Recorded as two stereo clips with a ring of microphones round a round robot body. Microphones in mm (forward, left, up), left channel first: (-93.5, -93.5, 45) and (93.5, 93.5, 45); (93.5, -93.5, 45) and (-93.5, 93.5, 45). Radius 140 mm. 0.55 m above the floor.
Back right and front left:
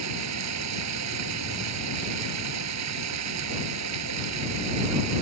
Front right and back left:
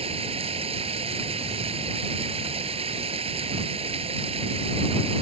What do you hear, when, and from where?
0.0 s running water: 65° left